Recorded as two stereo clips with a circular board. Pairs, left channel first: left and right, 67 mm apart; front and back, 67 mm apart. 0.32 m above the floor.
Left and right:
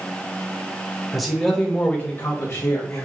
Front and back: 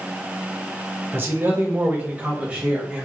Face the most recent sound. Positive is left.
turn(degrees=115)